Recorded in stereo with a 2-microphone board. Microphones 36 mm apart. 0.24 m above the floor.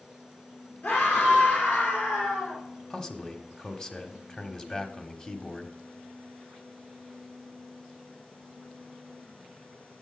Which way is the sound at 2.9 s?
20° left (ahead or behind).